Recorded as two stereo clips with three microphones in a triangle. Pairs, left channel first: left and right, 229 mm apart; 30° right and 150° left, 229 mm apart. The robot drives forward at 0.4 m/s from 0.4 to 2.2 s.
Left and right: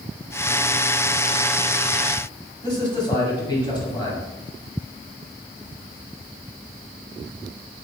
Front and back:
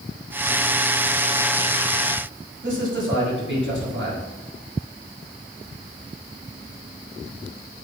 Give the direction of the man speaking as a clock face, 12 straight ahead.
7 o'clock.